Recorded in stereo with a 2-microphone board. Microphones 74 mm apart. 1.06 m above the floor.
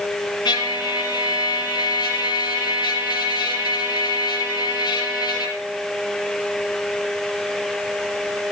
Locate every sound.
0.5 s a trumpet: 80° left, 6 m